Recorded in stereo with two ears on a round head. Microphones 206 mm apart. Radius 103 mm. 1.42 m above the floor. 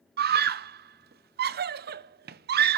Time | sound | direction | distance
0.2 | a scream | 45° right (ahead or behind) | 0.6 m